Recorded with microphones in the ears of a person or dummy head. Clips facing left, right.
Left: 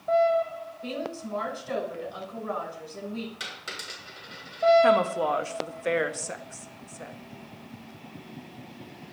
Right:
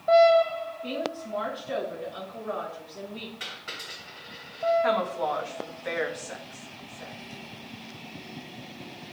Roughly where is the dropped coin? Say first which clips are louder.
Left 1 dB; left.